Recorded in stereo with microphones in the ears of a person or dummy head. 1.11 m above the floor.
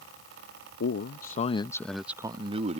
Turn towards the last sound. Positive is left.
turn(degrees=-35)  # may be behind; listen again after turning